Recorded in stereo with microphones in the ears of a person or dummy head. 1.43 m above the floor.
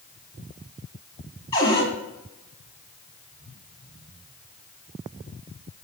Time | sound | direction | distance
1.5 | a cupboard door | 25° left (ahead or behind) | 1.2 m